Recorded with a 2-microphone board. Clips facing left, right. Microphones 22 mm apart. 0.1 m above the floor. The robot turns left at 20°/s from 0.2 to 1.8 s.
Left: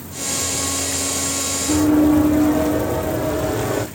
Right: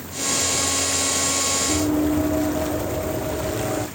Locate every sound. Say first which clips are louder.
1.7 s running footsteps: left 10 dB; 75° left (ahead or behind), 7.5 m; by 3.9 s 60° left (ahead or behind), 7 m